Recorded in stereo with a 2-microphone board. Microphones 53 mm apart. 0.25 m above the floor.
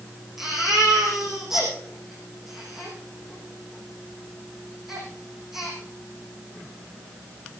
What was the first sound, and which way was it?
A baby crying, 5° right (ahead or behind).